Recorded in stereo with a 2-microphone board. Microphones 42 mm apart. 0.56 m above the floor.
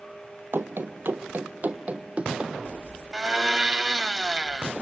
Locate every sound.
0.5 s running footsteps: 65° right (ahead or behind), 1.1 m; by 2.5 s 20° right (ahead or behind), 1.6 m
3.1 s a blender: 20° right (ahead or behind), 0.7 m